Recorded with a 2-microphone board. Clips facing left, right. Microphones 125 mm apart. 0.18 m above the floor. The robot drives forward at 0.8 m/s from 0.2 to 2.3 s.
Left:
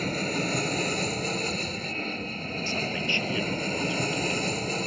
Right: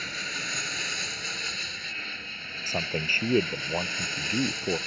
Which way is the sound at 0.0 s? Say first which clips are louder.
Left 11 dB; 45° left (ahead or behind).